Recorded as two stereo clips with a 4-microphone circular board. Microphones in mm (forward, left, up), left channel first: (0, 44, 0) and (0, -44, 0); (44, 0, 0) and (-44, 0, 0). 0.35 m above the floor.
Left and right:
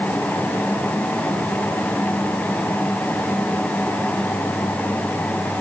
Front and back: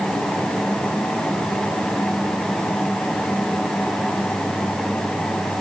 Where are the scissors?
No scissors in this recording.